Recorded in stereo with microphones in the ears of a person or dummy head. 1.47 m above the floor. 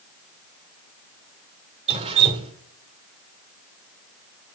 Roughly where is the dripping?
Right.